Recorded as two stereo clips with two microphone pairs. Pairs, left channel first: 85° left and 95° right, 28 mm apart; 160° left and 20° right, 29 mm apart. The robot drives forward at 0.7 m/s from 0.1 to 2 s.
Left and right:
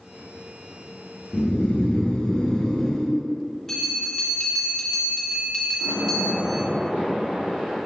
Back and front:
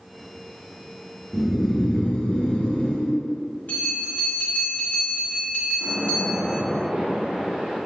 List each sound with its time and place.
1.3 s snoring: 65° left, 0.6 m; by 3.1 s 120° left, 0.7 m
3.7 s a bell: 165° left, 1.6 m
5.8 s a splash: 75° right, 1.5 m